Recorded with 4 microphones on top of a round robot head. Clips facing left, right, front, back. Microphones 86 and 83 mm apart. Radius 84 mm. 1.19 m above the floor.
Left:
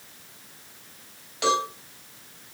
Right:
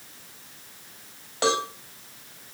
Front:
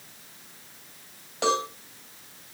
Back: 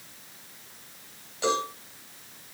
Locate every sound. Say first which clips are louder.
1.4 s a cowbell: left 1 dB, front 2 dB; 45° right, 5.5 m